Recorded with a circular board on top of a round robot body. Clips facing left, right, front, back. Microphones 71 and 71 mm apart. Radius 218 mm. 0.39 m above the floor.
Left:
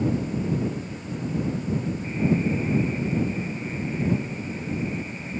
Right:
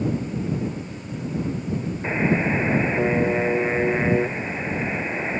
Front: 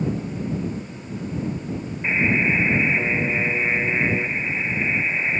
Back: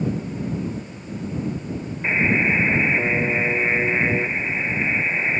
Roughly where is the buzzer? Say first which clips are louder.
Right 3 dB, back 1 dB; right.